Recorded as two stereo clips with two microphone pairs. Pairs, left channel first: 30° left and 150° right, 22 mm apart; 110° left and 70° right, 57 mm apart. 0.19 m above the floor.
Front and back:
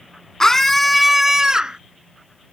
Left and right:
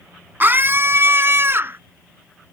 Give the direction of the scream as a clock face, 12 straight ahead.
1 o'clock.